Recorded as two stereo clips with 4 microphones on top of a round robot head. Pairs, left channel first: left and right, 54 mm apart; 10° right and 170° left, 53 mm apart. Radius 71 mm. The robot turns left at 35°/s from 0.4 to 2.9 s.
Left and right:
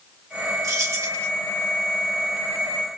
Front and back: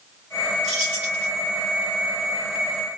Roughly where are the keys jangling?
Right.